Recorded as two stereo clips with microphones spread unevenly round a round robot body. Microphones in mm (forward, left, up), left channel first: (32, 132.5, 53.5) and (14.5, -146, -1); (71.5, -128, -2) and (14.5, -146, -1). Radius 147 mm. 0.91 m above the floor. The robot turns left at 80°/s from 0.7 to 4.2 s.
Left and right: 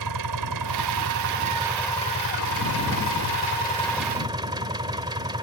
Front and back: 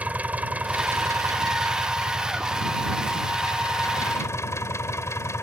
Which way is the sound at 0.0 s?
100° right.